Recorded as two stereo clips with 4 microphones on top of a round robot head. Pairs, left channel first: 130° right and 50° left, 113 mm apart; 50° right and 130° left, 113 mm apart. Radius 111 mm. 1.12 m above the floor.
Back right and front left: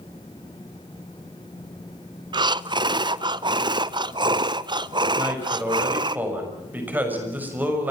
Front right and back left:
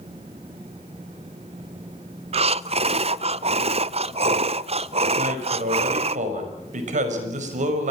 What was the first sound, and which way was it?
Breathing, 100° left.